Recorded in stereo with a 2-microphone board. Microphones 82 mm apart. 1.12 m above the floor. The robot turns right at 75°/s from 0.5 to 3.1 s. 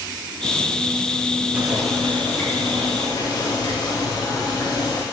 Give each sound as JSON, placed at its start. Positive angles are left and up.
{"t": 1.5, "sound": "boiling", "azimuth_deg": -20, "distance_m": 0.6}